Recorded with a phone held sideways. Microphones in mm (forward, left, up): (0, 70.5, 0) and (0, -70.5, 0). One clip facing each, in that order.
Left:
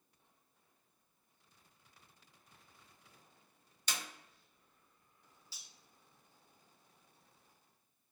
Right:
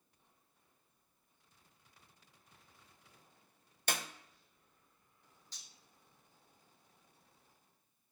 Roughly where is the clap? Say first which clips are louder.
Right 5 dB; right.